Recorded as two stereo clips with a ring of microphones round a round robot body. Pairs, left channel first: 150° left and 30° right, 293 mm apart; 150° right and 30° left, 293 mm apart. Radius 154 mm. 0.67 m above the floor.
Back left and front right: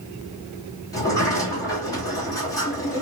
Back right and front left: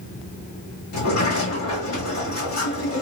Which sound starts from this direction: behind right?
A sliding door, at 0.9 s.